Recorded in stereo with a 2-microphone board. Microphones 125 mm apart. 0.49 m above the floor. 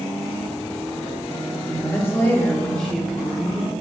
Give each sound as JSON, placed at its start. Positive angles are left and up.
{"t": 1.7, "sound": "a woman speaking", "side_deg": 25, "distance_m": 1.0}